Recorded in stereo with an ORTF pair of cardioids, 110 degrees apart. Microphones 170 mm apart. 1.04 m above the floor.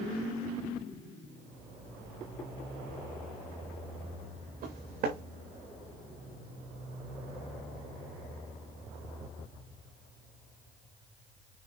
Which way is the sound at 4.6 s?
65° right.